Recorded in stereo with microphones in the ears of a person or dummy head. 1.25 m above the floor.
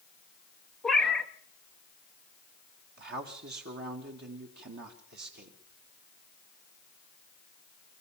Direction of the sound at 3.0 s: 50° right (ahead or behind).